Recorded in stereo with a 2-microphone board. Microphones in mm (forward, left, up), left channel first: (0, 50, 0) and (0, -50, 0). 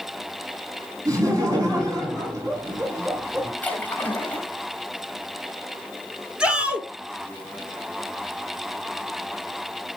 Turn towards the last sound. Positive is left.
turn(degrees=-10)  # may be behind; listen again after turning